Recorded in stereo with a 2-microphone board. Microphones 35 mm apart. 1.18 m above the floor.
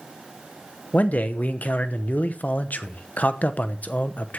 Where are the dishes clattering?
I don't hear dishes clattering.